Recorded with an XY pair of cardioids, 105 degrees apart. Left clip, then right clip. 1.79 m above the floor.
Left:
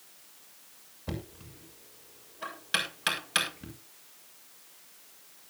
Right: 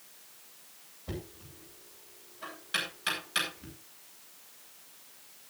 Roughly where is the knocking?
Ahead left.